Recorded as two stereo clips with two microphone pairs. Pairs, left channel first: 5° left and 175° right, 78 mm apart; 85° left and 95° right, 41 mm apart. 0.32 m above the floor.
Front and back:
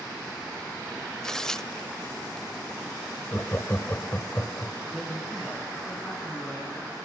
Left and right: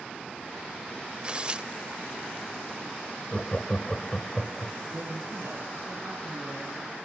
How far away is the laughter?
About 1.3 m.